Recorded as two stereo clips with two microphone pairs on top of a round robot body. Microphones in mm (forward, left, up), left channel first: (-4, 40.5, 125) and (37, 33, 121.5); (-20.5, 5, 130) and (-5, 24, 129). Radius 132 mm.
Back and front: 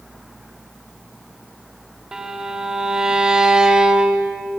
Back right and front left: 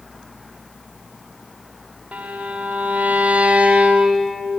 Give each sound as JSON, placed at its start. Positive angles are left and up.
{"t": 2.1, "sound": "a violin", "azimuth_deg": 70, "distance_m": 2.5}